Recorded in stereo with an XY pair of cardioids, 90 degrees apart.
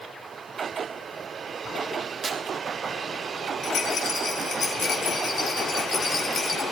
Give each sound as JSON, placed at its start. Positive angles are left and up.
{"t": 2.2, "sound": "tearing paper", "azimuth_deg": -45, "distance_m": 1.7}
{"t": 3.6, "sound": "a rattle", "azimuth_deg": 65, "distance_m": 3.0}